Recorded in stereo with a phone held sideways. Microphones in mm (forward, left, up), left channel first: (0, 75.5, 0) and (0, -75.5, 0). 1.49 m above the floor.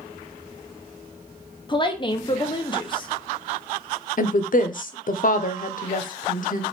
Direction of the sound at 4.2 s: 60° left (ahead or behind).